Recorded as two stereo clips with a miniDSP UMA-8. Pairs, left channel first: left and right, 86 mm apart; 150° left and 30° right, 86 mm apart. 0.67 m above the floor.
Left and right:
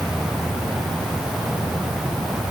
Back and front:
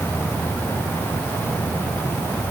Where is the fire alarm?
I don't hear a fire alarm.